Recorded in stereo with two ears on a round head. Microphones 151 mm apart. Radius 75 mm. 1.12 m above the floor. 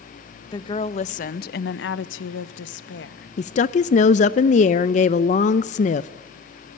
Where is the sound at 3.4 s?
45° left (ahead or behind), 0.5 m.